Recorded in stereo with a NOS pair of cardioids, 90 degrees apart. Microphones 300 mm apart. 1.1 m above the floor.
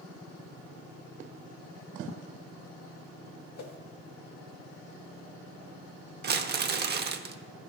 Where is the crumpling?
35° right, 0.6 m.